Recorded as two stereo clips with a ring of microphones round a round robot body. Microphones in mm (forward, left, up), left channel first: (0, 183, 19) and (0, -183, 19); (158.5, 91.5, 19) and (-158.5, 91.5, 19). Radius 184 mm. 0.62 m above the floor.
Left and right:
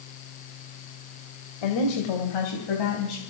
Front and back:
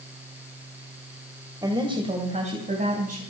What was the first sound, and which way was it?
A woman speaking, 100° left.